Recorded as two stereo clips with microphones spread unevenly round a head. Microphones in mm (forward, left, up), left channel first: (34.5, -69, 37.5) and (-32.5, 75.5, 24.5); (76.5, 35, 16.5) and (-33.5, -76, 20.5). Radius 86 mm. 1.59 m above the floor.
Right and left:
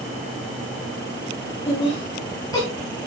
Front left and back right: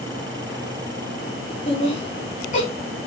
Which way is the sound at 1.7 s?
5° right.